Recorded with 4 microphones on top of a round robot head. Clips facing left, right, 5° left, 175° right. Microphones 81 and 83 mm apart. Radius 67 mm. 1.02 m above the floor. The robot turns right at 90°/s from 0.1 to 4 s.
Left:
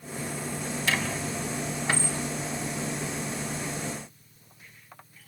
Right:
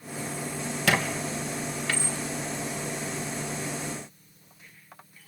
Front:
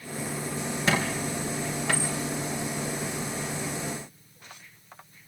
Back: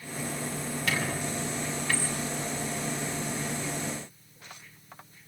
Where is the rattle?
No rattle in this recording.